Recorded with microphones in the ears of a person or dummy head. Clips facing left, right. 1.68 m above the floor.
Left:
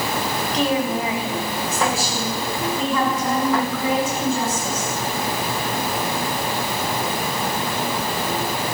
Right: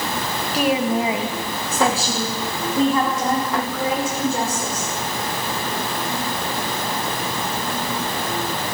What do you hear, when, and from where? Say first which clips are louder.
0.5 s a woman speaking: right 3 dB; 10° right (ahead or behind), 1.6 m; by 4.9 s 45° right (ahead or behind), 6 m